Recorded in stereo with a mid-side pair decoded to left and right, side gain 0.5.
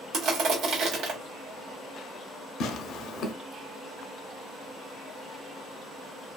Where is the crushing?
70° right, 1.0 m.